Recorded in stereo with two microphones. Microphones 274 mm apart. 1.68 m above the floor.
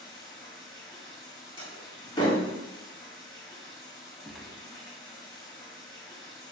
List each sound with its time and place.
0.0 s running water: 15° left (ahead or behind), 1.7 m
1.6 s a door slam: 20° left (ahead or behind), 2 m
4.2 s a gunshot: centre (ahead or behind), 0.6 m